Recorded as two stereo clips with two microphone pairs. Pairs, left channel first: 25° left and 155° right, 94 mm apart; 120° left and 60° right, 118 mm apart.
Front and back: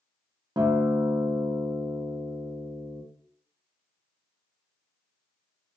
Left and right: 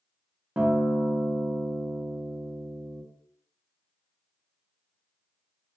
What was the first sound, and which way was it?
A guitar, 135° right.